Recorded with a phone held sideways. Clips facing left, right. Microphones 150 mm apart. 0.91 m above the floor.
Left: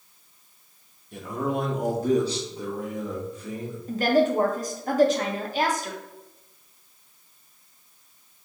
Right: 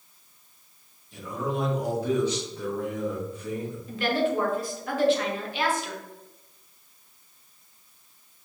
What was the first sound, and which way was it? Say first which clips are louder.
A man speaking: left 3 dB; 55° left (ahead or behind).